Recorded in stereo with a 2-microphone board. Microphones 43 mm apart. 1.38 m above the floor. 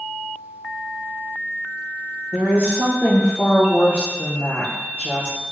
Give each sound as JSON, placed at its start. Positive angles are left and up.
{"t": 2.3, "sound": "a woman speaking", "side_deg": 60, "distance_m": 0.9}